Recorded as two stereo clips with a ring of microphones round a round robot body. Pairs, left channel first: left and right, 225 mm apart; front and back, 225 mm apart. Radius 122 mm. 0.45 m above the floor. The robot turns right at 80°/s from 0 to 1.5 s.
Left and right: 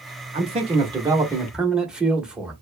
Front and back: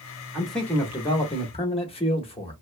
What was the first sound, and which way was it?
A man speaking, 100° right.